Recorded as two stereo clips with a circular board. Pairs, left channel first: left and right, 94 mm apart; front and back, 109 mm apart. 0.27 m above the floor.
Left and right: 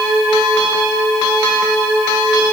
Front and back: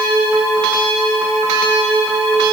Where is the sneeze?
No sneeze in this recording.